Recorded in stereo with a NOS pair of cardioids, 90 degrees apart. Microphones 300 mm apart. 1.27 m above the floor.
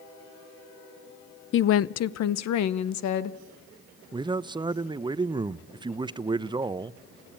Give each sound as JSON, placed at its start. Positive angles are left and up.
{"t": 1.5, "sound": "a woman speaking", "azimuth_deg": 40, "distance_m": 0.5}
{"t": 4.1, "sound": "a man speaking", "azimuth_deg": -15, "distance_m": 0.7}